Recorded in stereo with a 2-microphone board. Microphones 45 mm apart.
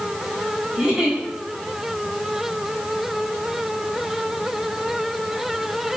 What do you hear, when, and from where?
0.7 s a giggle: 10° right (ahead or behind), 5.5 m